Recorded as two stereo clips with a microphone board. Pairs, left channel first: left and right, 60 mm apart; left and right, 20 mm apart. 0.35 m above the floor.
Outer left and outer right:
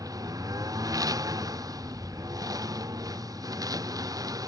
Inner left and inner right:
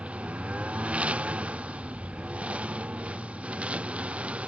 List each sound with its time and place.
0.0 s a lawn mower: 80° right; by 4.5 s 85° right